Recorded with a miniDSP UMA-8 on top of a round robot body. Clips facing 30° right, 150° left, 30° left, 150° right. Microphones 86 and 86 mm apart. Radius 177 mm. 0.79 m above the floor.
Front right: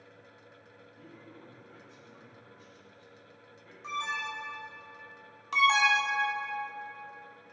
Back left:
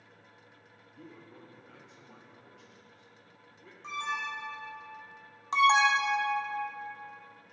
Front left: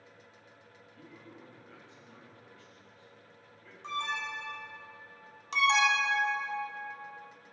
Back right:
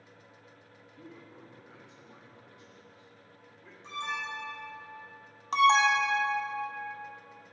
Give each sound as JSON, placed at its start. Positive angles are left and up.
{"t": 0.9, "sound": "a man speaking", "azimuth_deg": 140, "distance_m": 2.5}
{"t": 3.8, "sound": "an alarm", "azimuth_deg": 55, "distance_m": 3.5}
{"t": 5.5, "sound": "an alarm", "azimuth_deg": -160, "distance_m": 1.4}